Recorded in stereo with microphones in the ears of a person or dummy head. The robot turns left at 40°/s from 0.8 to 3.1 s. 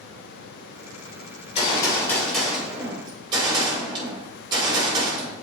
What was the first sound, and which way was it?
A gunshot, 45° left.